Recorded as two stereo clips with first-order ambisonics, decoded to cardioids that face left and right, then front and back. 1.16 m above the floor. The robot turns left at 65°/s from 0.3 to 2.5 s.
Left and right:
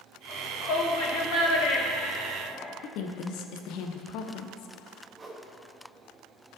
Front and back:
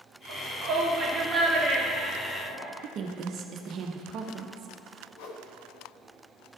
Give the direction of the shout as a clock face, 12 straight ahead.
7 o'clock.